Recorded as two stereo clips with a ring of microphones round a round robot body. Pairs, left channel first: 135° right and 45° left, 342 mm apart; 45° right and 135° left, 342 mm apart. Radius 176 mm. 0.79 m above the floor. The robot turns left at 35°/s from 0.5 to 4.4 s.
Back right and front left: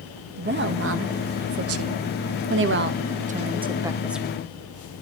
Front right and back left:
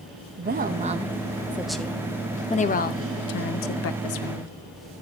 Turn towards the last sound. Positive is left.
turn(degrees=-50)